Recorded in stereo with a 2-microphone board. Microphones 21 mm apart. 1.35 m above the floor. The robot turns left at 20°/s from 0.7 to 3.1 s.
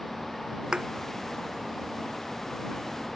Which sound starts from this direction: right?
A thud, at 0.7 s.